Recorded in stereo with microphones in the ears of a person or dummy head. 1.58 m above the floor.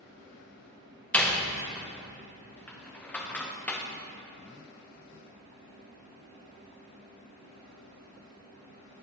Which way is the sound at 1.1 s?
5° left (ahead or behind).